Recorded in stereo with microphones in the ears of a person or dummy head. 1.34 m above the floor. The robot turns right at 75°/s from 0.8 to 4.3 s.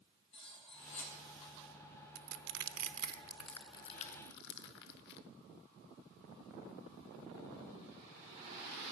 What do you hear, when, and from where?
0.3 s cutlery clinking: 35° left (ahead or behind), 4 m; by 1.1 s 60° left (ahead or behind), 4 m
2.1 s crushing: 80° right, 0.8 m; by 5.2 s 65° left (ahead or behind), 0.8 m